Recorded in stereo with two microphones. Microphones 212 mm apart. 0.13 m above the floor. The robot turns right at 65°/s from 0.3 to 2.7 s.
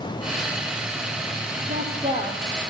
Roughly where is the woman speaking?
Ahead right.